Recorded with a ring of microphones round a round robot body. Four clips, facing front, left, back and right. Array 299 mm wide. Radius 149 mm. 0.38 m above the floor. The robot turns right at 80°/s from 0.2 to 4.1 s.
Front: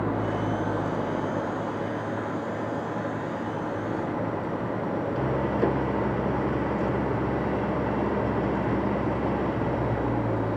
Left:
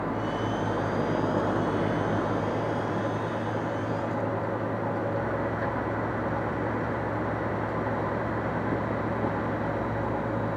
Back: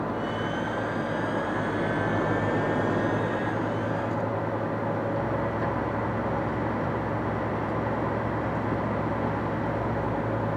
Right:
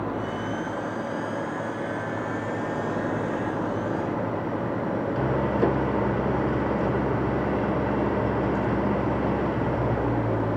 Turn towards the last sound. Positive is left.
turn(degrees=-60)